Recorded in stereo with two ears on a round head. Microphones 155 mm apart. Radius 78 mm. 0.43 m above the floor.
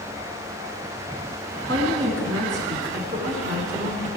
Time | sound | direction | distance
1.7 | a woman speaking | 75° right (ahead or behind) | 3.5 m